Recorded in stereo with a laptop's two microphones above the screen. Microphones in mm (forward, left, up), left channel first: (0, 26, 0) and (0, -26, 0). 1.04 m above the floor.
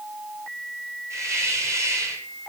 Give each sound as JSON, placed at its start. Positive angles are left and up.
{"t": 1.1, "sound": "a hiss", "side_deg": -70, "distance_m": 5.5}